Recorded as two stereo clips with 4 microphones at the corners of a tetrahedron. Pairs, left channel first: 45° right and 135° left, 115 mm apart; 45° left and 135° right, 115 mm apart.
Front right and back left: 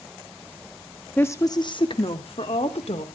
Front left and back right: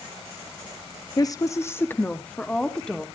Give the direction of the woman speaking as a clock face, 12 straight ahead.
11 o'clock.